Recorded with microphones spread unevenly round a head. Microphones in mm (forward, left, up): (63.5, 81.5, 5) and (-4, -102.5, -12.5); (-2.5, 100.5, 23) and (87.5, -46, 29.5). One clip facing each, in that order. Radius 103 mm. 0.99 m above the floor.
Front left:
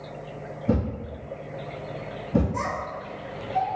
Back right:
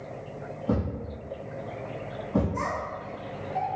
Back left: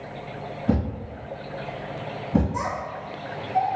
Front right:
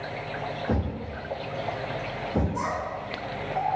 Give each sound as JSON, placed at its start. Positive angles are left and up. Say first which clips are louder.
{"t": 0.7, "sound": "a thud", "louder": "front left 3 dB, back left 6 dB", "azimuth_deg": 120, "distance_m": 1.8}
{"t": 2.5, "sound": "a child speaking", "louder": "front left 1 dB, even", "azimuth_deg": 115, "distance_m": 0.7}